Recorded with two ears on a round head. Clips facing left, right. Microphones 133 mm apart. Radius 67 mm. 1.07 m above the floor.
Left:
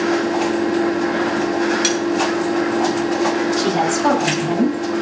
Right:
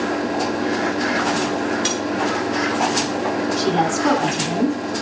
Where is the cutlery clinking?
85° left, 7 m.